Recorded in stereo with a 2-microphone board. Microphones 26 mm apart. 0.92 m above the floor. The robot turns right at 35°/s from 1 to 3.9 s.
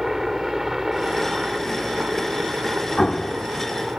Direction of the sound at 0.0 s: 160° right.